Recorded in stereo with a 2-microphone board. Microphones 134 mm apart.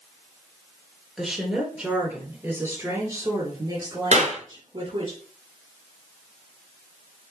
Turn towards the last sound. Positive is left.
turn(degrees=-60)  # may be behind; listen again after turning